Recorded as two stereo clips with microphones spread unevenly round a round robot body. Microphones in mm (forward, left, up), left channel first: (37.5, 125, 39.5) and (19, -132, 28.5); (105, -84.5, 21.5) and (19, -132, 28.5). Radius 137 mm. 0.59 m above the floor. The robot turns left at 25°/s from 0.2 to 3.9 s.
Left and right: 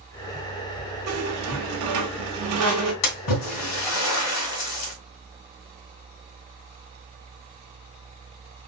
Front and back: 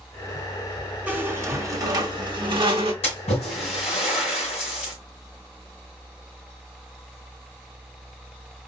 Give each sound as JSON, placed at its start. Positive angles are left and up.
{"t": 1.1, "sound": "a squeak", "azimuth_deg": -75, "distance_m": 1.4}
{"t": 3.0, "sound": "a splash", "azimuth_deg": 80, "distance_m": 2.0}